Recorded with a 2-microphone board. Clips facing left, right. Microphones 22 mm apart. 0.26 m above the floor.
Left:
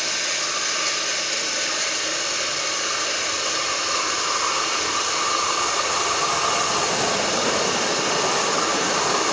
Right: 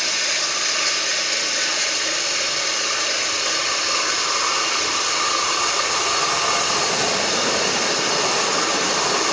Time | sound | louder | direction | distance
0.0 | running water | right 3 dB | 20° right (ahead or behind) | 4.5 m